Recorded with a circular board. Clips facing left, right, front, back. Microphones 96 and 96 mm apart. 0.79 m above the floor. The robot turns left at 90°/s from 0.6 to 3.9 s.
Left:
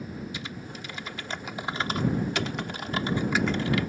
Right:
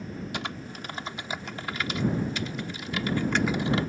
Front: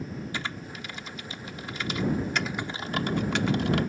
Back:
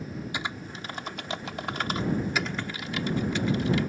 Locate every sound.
0.3 s typing on a keyboard: 105° right; by 3.9 s 45° right